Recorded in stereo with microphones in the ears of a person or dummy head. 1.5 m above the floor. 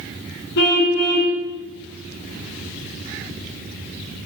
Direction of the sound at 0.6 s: 65° left (ahead or behind).